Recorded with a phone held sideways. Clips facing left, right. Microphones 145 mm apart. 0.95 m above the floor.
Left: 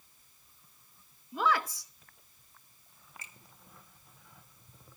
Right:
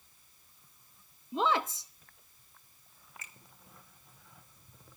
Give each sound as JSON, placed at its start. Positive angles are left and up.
{"t": 1.3, "sound": "a woman speaking", "side_deg": -25, "distance_m": 0.8}
{"t": 3.2, "sound": "a finger snap", "side_deg": 30, "distance_m": 1.5}